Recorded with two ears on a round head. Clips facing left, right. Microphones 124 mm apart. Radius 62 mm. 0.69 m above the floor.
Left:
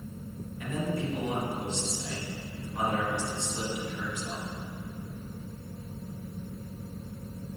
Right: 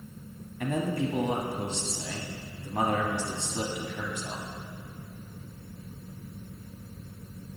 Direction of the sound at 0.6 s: 50° right (ahead or behind).